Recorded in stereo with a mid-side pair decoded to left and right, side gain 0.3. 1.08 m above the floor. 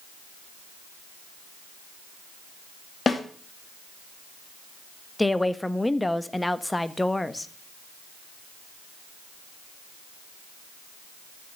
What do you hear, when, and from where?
3.1 s a snare drum: 50° left, 2.5 m
5.2 s a woman speaking: 15° left, 1.4 m